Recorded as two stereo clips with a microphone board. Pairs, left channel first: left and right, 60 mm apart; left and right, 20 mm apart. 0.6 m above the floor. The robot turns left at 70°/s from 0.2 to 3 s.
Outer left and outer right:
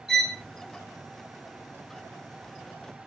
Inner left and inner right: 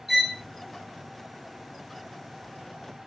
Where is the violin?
5° right (ahead or behind), 1.1 m; by 0.4 s 10° left (ahead or behind), 1.1 m.